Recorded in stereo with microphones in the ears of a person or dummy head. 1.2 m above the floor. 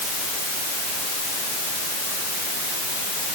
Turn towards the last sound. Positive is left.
No sound to turn to.